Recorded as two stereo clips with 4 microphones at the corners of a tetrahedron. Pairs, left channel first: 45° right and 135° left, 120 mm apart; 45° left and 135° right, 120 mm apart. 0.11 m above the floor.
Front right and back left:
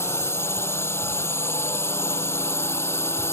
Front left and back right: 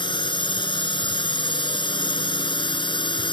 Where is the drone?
15° left.